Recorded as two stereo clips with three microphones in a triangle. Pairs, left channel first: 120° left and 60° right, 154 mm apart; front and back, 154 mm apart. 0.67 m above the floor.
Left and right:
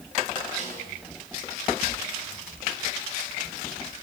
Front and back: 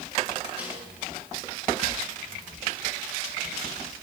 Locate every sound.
0.6 s a snare drum: 100° right, 7.5 m